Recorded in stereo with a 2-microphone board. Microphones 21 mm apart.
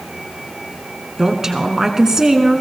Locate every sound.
1.2 s a woman speaking: 25° right (ahead or behind), 1.3 m